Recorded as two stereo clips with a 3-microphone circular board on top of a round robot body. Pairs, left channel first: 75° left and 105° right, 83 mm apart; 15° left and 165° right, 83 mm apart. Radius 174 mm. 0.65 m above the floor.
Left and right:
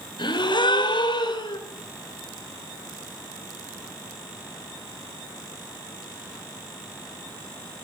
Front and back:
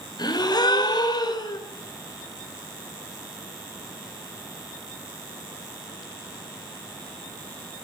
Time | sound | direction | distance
0.2 | a gasp | 50° left | 4 m